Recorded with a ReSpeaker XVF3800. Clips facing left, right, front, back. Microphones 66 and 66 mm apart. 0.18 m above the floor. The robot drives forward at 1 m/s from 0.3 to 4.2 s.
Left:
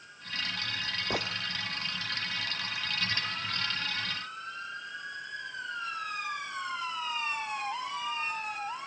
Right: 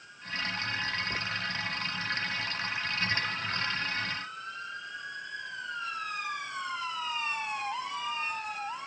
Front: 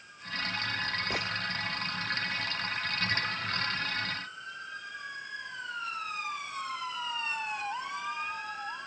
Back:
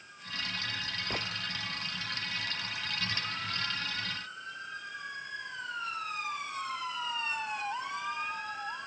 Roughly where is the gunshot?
Left.